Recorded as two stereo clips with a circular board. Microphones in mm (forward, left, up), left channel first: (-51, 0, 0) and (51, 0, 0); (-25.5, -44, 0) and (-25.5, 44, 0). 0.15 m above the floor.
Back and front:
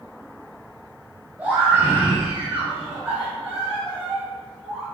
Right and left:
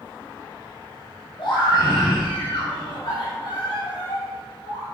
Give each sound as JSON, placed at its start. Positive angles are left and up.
{"t": 1.4, "sound": "a scream", "azimuth_deg": -70, "distance_m": 4.0}